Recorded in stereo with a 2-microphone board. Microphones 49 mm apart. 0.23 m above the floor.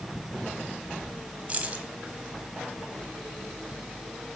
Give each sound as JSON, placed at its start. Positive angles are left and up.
{"t": 1.5, "sound": "keys jangling", "side_deg": -25, "distance_m": 1.1}